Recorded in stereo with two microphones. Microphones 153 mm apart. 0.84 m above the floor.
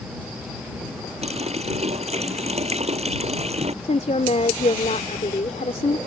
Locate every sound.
1.2 s a running tap: 45° right (ahead or behind)
3.8 s a woman speaking: 50° left (ahead or behind)